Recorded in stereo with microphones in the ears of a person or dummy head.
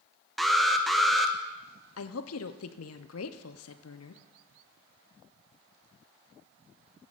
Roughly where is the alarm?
Centre.